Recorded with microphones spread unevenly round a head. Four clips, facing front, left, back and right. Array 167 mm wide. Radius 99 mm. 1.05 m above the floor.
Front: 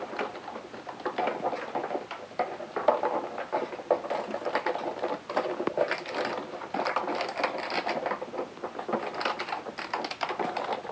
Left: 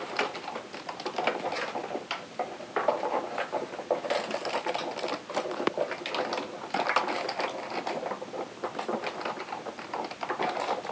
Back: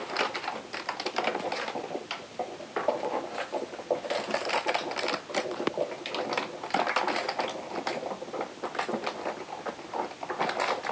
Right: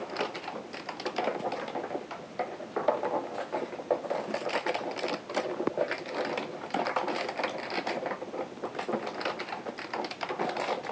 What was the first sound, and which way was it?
Only background noise.